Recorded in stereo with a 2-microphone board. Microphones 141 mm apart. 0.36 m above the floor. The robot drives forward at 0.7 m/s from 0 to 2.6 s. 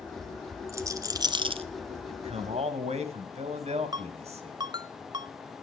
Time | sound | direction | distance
0.7 | a rattle | 20° right (ahead or behind) | 1.1 m
2.1 | a man speaking | 45° right (ahead or behind) | 2 m
3.9 | a ringtone | 30° right (ahead or behind) | 0.6 m